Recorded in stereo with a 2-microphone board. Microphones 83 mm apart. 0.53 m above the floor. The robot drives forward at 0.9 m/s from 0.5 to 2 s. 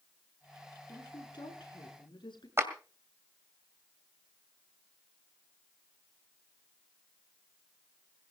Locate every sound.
0.9 s a woman speaking: 80° left, 6.5 m
2.6 s a clap: 35° right (ahead or behind), 2.0 m